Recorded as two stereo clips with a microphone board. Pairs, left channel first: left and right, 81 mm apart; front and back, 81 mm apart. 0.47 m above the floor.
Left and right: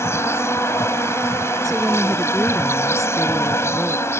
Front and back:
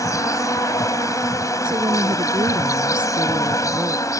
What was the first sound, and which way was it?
An insect, 40° left.